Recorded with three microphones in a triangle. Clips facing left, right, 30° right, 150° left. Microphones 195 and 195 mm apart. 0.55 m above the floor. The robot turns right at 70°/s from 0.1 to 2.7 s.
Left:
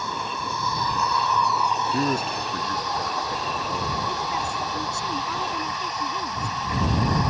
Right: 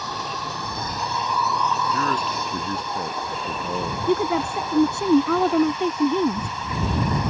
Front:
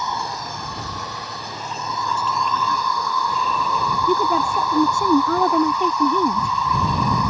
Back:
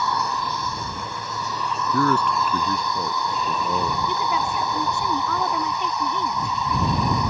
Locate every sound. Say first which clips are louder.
0.0 s an insect: even, back 2 dB; 100° right; by 7.3 s 85° left
1.9 s a man speaking: left 1 dB, back 6 dB; 155° left; by 4.0 s 150° right
4.1 s a woman speaking: right 9 dB, front 6 dB; 70° right